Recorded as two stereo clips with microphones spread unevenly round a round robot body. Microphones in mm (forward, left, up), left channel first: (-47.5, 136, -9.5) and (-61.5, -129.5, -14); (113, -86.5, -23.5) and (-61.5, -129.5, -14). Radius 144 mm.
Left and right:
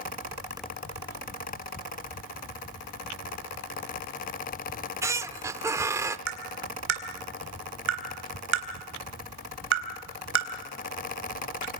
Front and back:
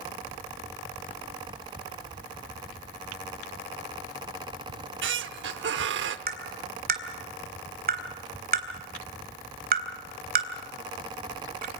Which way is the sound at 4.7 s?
175° right.